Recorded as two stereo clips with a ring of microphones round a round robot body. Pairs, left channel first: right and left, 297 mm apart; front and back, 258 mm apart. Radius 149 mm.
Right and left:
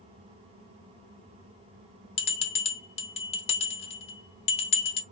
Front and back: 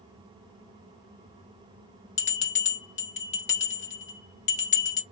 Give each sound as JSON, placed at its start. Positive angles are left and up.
{"t": 2.2, "sound": "a bell", "azimuth_deg": -35, "distance_m": 0.7}